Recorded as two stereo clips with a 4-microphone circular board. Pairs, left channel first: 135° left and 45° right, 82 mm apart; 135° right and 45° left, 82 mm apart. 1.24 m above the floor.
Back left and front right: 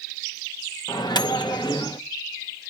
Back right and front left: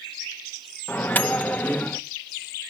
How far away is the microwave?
About 0.6 m.